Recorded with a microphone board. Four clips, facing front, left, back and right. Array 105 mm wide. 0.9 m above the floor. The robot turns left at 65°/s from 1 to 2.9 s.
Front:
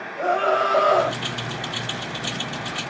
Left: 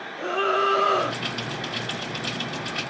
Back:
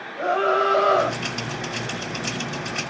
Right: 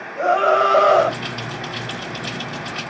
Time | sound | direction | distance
0.2 | a scream | 80° right | 3.5 m